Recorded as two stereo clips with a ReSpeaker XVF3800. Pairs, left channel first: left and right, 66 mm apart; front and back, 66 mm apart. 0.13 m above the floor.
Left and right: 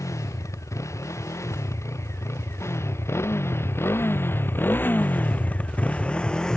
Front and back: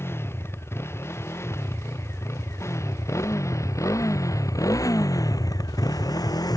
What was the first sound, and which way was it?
A motorcycle, 50° left.